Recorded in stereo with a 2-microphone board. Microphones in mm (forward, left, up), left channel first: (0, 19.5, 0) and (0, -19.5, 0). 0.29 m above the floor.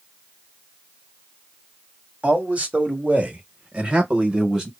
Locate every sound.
2.2 s a man speaking: 35° right (ahead or behind), 1.4 m; by 4.7 s 15° right (ahead or behind), 1.1 m